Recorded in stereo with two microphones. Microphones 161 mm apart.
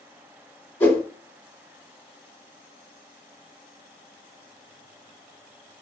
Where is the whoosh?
15° left (ahead or behind), 1.8 m.